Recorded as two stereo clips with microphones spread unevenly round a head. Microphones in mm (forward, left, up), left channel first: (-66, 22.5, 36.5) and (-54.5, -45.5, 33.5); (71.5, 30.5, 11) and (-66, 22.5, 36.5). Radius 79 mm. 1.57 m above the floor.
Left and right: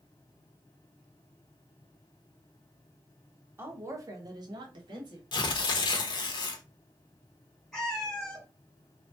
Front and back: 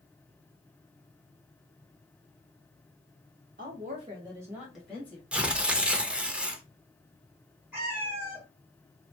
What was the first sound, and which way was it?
A woman speaking, 140° right.